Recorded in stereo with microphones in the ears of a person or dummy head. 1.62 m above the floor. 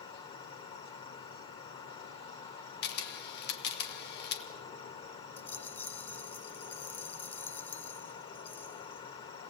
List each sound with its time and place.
0.0 s an insect: 30° left (ahead or behind), 2 m
2.8 s a camera shutter: 65° left (ahead or behind), 2.5 m
5.4 s a rattle: 15° left (ahead or behind), 0.7 m